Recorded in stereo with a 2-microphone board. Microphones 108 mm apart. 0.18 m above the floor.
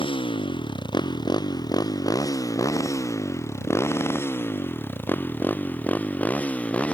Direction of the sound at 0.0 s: 55° left (ahead or behind).